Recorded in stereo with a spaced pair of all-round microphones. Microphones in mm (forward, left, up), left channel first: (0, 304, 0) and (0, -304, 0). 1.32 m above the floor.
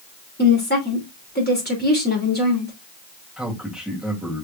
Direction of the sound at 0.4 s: 15° left (ahead or behind).